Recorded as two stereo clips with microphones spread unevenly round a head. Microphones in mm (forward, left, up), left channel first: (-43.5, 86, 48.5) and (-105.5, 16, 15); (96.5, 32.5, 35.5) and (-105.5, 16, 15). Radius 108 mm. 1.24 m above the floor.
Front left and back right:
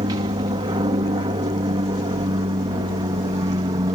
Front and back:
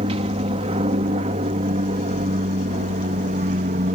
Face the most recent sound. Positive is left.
turn(degrees=-130)